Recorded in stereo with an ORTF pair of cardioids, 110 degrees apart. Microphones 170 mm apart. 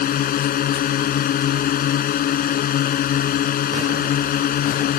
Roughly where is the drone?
Ahead left.